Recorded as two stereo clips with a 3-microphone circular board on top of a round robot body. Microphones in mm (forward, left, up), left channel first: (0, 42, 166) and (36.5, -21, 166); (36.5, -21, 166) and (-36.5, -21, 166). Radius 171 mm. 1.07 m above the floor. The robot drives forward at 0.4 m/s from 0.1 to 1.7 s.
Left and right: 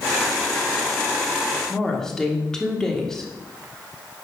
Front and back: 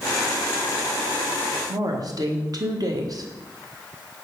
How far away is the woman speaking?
About 1.6 m.